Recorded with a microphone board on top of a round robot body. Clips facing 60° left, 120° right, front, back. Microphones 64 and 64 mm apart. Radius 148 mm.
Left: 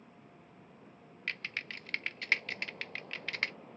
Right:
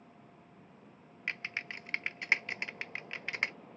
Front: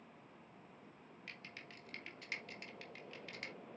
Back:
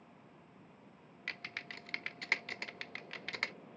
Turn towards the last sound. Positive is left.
turn(degrees=170)